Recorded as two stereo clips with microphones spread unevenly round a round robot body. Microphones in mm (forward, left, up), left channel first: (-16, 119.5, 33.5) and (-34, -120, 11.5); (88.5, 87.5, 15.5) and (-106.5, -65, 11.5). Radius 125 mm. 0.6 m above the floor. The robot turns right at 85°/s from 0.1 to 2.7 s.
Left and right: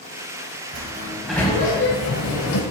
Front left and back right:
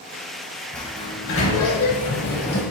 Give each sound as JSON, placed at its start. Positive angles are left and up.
{"t": 0.7, "sound": "a sliding door", "azimuth_deg": -50, "distance_m": 0.6}